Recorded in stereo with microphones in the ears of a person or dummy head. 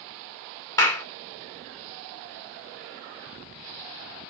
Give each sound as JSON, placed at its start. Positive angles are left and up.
{"t": 0.8, "sound": "a clap", "side_deg": 10, "distance_m": 1.6}